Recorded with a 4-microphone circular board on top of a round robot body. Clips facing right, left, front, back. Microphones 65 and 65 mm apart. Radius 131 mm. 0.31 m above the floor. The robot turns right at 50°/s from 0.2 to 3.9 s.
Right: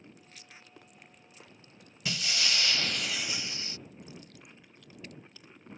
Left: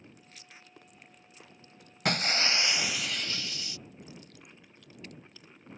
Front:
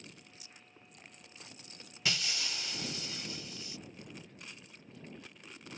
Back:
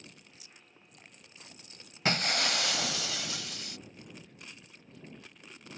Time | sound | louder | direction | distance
2.0 | breaking glass | left 5 dB, back 8 dB | 130° left | ?